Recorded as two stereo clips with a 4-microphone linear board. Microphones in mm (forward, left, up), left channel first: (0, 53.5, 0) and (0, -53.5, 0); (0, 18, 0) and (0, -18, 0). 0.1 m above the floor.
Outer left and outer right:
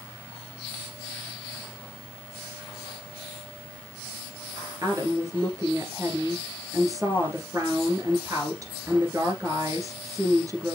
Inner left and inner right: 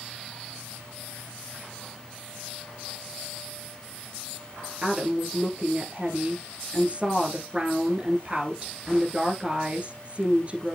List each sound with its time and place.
4.8 s a woman speaking: 30° right (ahead or behind), 1.9 m